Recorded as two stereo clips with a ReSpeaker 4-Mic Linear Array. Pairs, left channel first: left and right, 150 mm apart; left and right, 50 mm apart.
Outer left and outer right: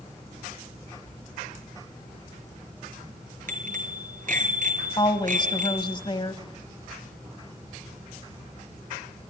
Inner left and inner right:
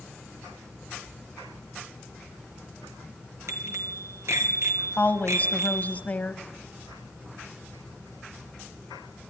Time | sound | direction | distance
3.5 | a bicycle bell | 65° right (ahead or behind) | 3 m
5.0 | a woman speaking | 35° left (ahead or behind) | 1.2 m